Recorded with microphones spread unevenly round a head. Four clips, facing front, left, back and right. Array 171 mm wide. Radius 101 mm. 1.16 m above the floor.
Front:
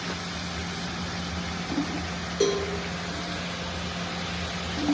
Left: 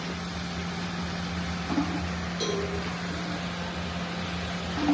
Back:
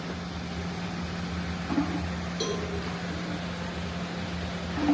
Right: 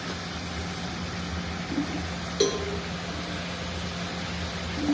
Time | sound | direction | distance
2.4 | a cowbell | 60° right | 1.2 m